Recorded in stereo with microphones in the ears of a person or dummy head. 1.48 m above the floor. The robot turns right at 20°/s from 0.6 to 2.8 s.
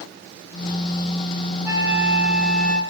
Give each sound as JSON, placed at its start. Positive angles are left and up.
{"t": 1.6, "sound": "a flute", "side_deg": -10, "distance_m": 1.5}